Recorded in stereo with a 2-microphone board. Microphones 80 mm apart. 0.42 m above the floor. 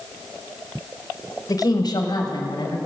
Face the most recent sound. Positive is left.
turn(degrees=70)  # may be behind; listen again after turning